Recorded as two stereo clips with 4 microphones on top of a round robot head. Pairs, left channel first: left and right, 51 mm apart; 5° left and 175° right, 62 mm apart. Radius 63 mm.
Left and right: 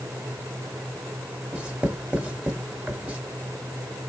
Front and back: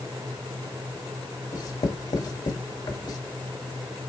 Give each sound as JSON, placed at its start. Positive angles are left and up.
{"t": 1.5, "sound": "writing", "azimuth_deg": -20, "distance_m": 1.5}